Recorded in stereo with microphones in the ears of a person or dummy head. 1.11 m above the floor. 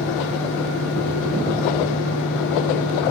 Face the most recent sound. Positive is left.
turn(degrees=65)  # may be behind; listen again after turning